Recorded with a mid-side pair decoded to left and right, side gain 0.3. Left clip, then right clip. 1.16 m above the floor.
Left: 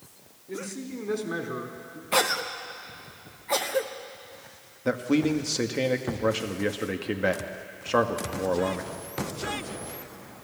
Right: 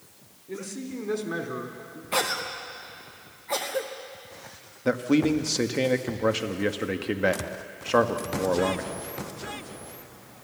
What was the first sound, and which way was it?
A man speaking, 5° right.